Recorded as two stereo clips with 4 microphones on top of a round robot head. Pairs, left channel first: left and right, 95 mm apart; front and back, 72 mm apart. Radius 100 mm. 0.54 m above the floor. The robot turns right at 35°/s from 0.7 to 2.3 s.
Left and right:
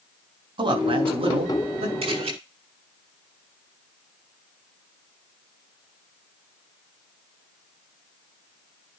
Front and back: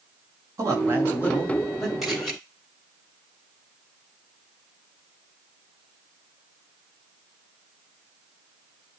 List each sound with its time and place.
0.6 s a man speaking: 125° right, 3.5 m; by 1.9 s 85° right, 3.5 m
2.0 s a camera shutter: 90° right, 7 m; by 2.3 s 80° right, 7 m